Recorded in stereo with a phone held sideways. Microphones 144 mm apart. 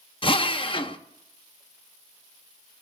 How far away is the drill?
About 0.7 m.